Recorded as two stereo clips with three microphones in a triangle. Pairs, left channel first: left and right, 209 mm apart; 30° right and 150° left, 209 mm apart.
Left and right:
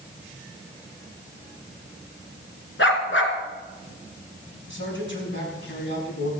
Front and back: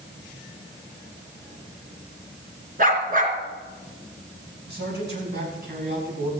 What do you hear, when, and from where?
2.8 s a dog barking: 105° left, 2 m
4.7 s a man speaking: 115° left, 5.5 m